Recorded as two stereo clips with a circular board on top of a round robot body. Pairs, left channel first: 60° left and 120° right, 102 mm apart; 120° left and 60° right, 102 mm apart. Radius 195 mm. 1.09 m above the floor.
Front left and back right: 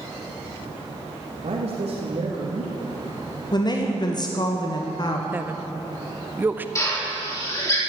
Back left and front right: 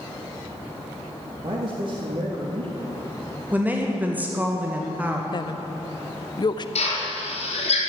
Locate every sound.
1.4 s a man speaking: 100° right, 2 m
3.5 s a woman speaking: 15° left, 1.6 m
5.3 s a woman speaking: 165° left, 0.7 m
6.8 s a drill: 120° left, 3.5 m